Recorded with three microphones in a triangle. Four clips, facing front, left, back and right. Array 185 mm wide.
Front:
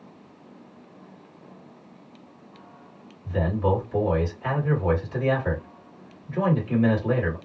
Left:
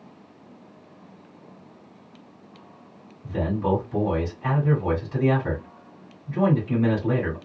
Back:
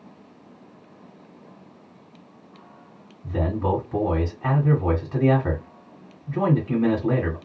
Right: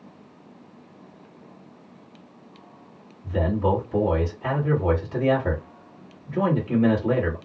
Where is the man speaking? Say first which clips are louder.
Right 1 dB, even; 165° right, 1.9 m.